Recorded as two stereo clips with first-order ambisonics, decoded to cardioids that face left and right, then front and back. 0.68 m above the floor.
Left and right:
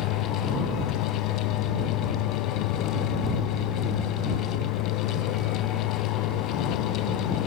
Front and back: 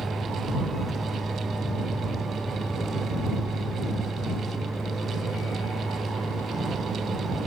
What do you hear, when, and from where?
0.0 s a vehicle: 95° left